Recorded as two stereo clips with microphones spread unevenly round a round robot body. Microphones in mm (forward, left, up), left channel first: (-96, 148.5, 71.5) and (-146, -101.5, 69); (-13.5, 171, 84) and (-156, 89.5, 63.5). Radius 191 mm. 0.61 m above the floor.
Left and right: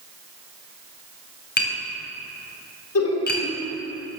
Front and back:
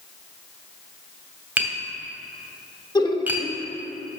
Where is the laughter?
100° left, 1.9 m.